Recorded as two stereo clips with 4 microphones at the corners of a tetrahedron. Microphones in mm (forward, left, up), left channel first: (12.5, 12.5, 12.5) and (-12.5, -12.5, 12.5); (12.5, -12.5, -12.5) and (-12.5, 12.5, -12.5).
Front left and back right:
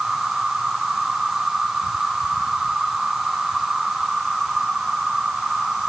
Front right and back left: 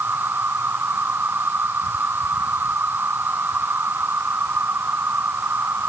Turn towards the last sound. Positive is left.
turn(degrees=145)